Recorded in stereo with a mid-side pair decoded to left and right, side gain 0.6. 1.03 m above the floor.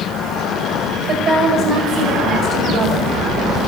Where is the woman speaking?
45° right, 5.5 m.